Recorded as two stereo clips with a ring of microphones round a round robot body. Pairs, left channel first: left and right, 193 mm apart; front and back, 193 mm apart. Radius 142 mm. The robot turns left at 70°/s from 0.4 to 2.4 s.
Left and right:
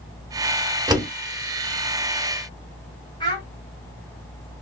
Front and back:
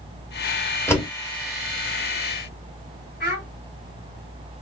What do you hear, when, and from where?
0.9 s a door slam: 55° right, 0.9 m; by 1.1 s 70° right, 0.9 m
3.2 s a child speaking: 30° left, 1.6 m